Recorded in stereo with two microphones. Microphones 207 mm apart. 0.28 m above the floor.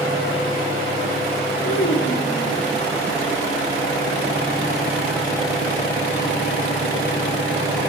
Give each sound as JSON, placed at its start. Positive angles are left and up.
{"t": 1.6, "sound": "a child speaking", "side_deg": 75, "distance_m": 3.0}